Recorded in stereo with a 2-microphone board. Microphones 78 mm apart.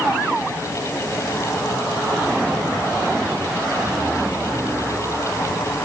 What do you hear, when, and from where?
Only background noise.